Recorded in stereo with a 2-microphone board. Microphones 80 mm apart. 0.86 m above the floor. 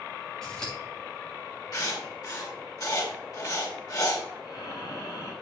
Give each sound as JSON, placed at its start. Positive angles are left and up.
{"t": 0.4, "sound": "scissors", "side_deg": 10, "distance_m": 5.5}
{"t": 1.7, "sound": "writing", "side_deg": 50, "distance_m": 3.0}
{"t": 4.4, "sound": "breathing", "side_deg": 55, "distance_m": 6.0}